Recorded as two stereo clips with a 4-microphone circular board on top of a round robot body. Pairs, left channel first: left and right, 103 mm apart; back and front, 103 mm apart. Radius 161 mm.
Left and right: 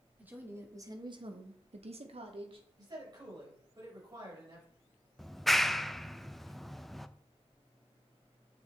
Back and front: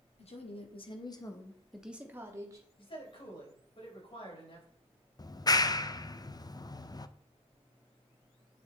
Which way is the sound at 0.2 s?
165° right.